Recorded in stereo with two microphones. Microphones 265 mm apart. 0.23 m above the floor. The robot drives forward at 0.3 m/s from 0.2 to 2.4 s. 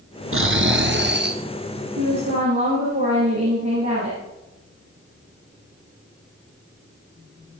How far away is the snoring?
About 0.9 m.